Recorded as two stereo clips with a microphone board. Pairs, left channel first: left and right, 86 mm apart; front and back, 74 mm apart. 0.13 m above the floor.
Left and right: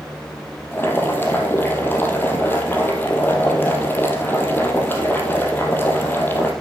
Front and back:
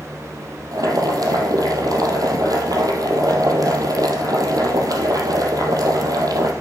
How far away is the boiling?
About 2.5 m.